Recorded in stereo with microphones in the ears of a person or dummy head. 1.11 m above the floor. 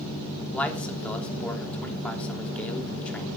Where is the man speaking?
10° left (ahead or behind), 3 m.